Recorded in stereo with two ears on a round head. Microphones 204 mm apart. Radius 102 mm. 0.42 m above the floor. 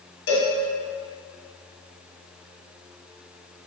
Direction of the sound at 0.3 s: 65° left (ahead or behind).